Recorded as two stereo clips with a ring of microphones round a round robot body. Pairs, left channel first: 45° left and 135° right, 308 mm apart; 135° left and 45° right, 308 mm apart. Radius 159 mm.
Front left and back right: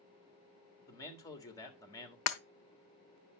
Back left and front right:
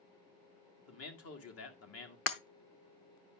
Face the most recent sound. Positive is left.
turn(degrees=85)